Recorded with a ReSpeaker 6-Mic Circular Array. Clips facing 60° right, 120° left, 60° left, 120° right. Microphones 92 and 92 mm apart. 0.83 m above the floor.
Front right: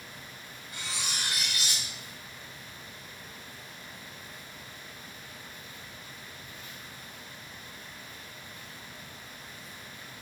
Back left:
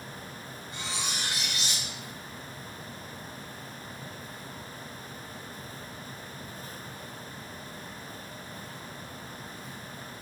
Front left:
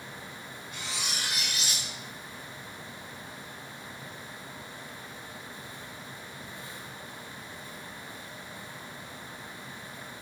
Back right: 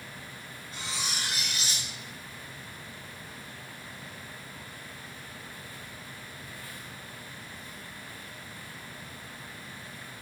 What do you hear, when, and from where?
0.7 s cutlery clinking: 175° right, 0.6 m